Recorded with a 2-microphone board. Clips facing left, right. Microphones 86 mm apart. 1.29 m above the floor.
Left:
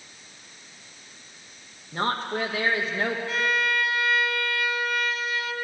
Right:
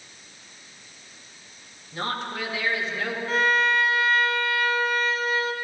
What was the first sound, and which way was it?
A woman speaking, 45° left (ahead or behind).